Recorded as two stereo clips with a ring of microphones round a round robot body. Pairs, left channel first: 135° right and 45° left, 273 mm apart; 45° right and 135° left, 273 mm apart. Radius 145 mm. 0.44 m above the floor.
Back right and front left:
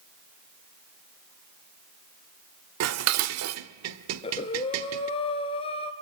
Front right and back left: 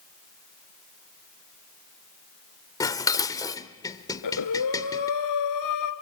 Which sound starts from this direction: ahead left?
Dishes clattering, at 2.8 s.